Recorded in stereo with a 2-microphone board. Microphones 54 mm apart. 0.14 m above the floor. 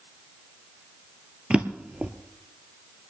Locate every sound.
1.5 s a drawer: 20° right (ahead or behind), 0.9 m